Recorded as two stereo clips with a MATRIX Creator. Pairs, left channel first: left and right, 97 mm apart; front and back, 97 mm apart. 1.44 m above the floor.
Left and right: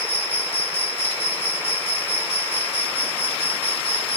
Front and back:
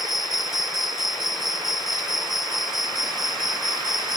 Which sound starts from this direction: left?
An insect, at 0.0 s.